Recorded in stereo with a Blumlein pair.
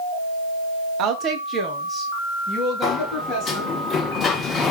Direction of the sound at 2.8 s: 25° left.